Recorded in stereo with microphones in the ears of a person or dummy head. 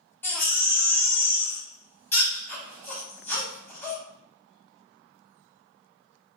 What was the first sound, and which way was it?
A baby crying, 5° left (ahead or behind).